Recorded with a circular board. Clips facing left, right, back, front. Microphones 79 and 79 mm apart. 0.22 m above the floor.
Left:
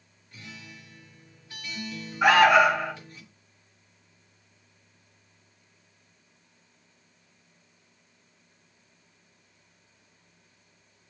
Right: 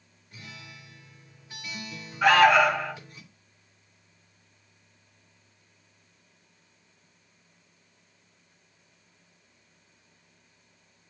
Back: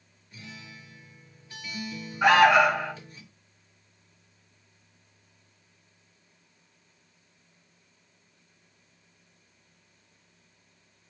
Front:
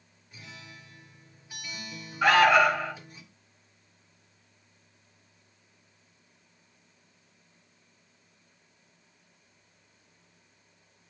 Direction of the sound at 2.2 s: 150° left.